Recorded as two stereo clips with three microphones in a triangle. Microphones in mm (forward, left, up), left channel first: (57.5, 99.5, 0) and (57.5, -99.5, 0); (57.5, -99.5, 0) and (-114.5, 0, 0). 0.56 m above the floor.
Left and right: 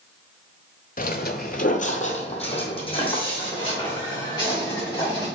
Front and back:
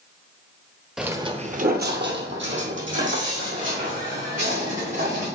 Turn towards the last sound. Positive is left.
turn(degrees=160)